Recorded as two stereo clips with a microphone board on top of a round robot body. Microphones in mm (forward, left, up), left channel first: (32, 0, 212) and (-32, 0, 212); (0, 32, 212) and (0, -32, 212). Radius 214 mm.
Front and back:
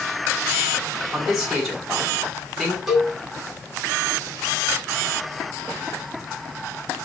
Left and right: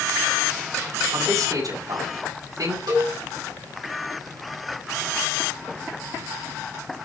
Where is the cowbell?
95° right, 3.5 m.